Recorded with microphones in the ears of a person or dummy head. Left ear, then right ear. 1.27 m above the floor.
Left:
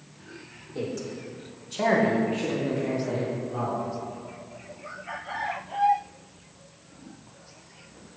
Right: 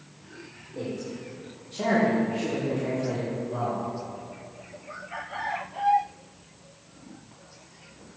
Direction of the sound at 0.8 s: 70° left (ahead or behind).